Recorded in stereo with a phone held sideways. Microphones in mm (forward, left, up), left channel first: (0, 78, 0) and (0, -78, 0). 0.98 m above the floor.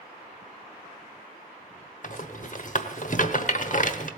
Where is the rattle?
55° left (ahead or behind), 1.0 m.